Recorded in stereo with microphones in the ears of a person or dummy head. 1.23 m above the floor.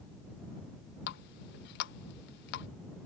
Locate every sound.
1.1 s a running tap: 60° left (ahead or behind)